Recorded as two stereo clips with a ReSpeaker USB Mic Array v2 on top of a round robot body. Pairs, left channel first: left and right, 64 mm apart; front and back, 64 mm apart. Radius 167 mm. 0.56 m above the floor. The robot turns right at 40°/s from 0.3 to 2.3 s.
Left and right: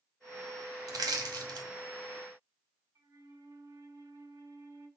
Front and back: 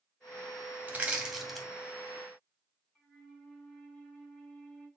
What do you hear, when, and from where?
0.9 s crushing: 115° right, 2.0 m; by 1.7 s 85° right, 2.0 m
3.0 s a flute: 85° right, 6 m